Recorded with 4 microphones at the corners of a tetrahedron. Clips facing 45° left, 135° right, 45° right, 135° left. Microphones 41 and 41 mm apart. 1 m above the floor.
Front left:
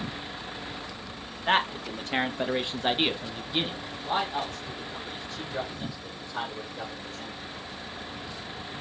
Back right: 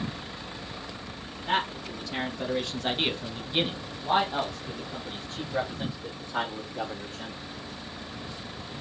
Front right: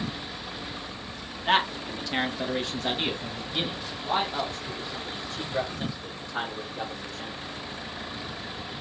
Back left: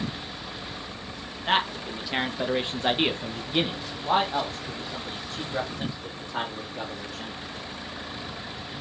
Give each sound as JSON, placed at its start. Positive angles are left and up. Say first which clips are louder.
{"t": 1.5, "sound": "a man speaking", "louder": "front left 3 dB, front right 1 dB", "azimuth_deg": 45, "distance_m": 1.3}